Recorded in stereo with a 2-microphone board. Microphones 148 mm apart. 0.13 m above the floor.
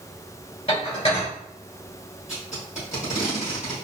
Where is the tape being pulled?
60° left (ahead or behind), 2.0 m.